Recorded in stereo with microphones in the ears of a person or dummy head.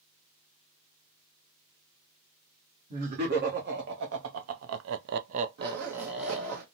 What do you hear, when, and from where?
2.9 s laughter: 50° right (ahead or behind), 1.3 m; by 6.6 s 5° left (ahead or behind), 0.9 m
5.6 s a zipper: 55° right (ahead or behind), 0.9 m